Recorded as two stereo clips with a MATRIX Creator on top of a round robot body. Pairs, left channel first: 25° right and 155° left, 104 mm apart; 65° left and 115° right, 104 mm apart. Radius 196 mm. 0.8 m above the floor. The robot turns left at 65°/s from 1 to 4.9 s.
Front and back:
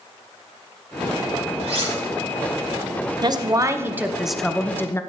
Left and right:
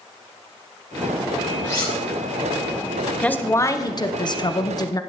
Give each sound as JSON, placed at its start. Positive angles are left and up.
{"t": 1.6, "sound": "cutlery clinking", "azimuth_deg": 130, "distance_m": 2.5}
{"t": 3.2, "sound": "a woman speaking", "azimuth_deg": 140, "distance_m": 1.0}